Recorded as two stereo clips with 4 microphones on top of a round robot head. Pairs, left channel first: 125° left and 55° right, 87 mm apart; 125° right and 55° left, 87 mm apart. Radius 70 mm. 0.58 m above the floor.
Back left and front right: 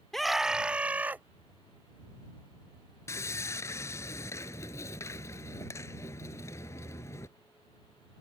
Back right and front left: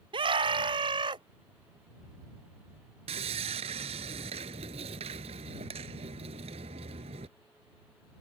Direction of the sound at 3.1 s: 65° left.